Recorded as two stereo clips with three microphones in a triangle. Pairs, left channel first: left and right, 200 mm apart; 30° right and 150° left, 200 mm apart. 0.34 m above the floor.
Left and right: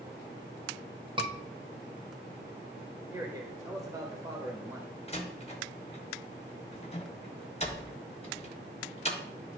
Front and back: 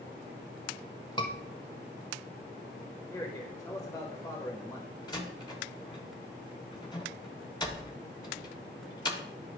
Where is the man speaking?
55° right, 1.2 m.